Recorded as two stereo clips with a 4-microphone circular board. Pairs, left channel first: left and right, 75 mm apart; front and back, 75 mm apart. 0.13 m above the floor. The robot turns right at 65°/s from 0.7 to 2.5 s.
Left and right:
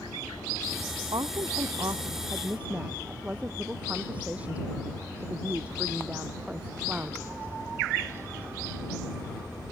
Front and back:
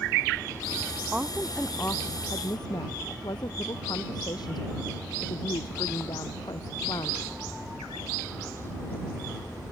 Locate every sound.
1.1 s a woman speaking: 110° right; by 7.2 s 20° right